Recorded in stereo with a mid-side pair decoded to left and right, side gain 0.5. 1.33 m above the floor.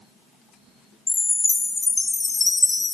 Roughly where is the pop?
I don't hear a pop.